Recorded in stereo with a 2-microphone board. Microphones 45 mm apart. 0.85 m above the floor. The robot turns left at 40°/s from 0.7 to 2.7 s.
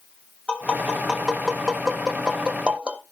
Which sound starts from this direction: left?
Tapping, at 0.5 s.